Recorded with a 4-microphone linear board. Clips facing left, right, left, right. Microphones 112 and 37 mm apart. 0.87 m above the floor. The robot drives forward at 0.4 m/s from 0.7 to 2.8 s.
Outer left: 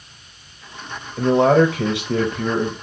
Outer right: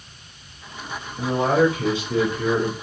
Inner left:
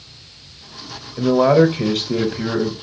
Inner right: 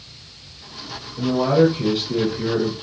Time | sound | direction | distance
1.2 | a man speaking | 65° left (ahead or behind) | 0.8 m